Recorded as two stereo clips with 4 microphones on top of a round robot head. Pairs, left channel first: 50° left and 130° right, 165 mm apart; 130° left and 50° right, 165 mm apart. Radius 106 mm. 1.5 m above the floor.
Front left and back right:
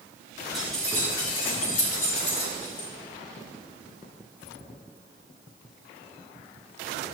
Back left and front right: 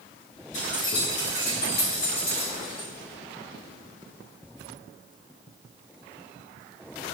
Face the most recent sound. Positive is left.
turn(degrees=60)